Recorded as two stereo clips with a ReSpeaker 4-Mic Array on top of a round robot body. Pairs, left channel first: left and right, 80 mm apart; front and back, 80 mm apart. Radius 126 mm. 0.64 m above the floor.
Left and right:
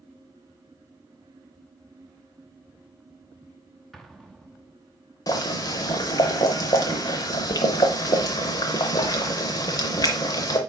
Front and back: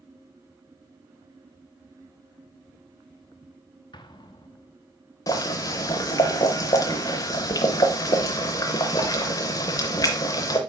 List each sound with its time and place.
3.9 s an explosion: 5° left, 1.0 m
5.3 s boiling: 45° left, 0.5 m